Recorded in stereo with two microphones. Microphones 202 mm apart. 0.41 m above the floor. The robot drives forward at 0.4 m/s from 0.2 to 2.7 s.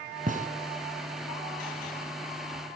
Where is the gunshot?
40° right (ahead or behind), 1.6 m; by 0.5 s 35° right (ahead or behind), 1.6 m.